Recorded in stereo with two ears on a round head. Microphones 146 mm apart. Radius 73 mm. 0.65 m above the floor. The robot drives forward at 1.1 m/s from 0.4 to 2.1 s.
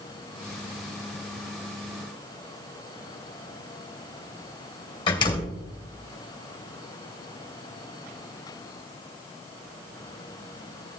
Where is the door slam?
30° left (ahead or behind), 2.5 m.